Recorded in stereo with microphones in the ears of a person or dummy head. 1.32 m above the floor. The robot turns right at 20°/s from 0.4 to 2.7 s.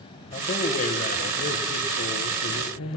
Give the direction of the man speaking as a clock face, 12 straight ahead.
11 o'clock.